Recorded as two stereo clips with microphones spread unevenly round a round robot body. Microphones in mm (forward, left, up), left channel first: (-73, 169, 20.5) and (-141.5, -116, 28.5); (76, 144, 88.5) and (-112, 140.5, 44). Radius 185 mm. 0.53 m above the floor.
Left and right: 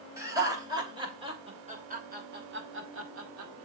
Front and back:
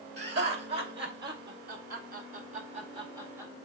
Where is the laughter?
175° left, 4 m; by 3.5 s 110° right, 1.7 m.